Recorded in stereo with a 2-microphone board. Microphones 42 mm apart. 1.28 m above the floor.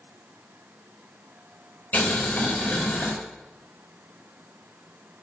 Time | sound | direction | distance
1.9 | boiling | 45° left (ahead or behind) | 4.5 m